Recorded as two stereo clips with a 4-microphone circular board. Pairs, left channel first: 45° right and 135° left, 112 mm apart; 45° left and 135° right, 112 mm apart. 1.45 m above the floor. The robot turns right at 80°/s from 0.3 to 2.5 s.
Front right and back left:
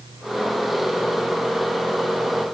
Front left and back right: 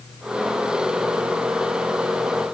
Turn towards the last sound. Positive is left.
No sound to turn to.